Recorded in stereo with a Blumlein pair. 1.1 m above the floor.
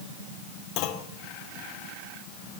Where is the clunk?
45° left, 2.5 m.